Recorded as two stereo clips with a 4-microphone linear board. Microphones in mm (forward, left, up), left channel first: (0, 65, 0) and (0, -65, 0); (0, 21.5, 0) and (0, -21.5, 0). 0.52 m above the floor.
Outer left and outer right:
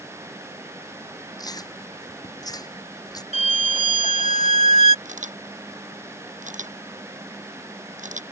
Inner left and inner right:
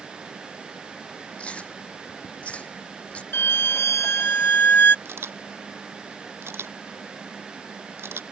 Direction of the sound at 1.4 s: 30° left (ahead or behind).